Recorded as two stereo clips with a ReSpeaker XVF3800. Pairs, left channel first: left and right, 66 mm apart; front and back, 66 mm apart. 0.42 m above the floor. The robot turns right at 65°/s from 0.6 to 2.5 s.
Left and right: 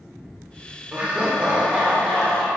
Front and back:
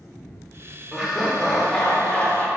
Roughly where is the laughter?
Behind right.